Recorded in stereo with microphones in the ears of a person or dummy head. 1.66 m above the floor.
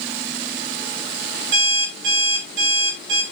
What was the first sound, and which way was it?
An alarm clock, 75° right (ahead or behind).